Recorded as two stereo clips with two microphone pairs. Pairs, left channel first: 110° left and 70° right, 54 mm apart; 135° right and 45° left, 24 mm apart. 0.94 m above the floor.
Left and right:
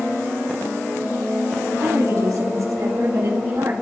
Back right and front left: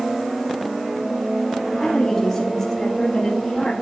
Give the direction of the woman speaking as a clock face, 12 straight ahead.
2 o'clock.